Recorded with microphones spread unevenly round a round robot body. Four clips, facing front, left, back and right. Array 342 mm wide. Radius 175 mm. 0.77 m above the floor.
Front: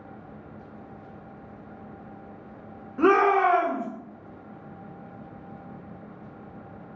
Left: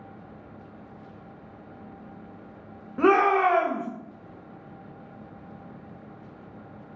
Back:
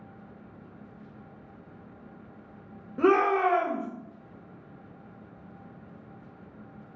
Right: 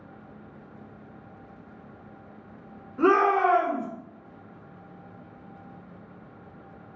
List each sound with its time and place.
3.0 s a shout: 130° left, 1.3 m